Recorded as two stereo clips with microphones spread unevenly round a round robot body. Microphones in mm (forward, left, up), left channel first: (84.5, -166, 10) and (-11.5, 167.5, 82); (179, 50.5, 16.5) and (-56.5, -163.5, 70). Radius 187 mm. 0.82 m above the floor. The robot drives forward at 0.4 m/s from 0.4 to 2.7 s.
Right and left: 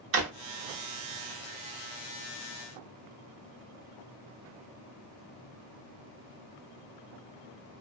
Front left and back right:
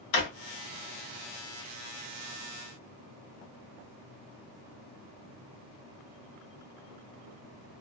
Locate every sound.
0.1 s a drawer: 55° left, 1.0 m